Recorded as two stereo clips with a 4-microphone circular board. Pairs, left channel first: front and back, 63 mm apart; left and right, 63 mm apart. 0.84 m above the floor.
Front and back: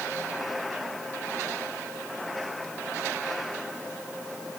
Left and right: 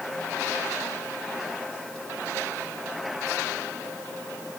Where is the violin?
I don't hear a violin.